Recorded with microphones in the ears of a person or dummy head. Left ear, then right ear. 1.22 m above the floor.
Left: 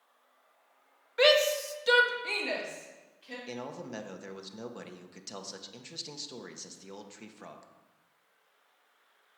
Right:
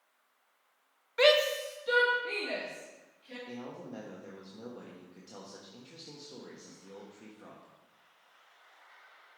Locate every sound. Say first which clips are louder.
1.2 s a shout: left 1 dB; centre (ahead or behind), 0.8 m; by 3.4 s 75° left (ahead or behind), 3 m
3.5 s a man speaking: left 6 dB; 60° left (ahead or behind), 0.9 m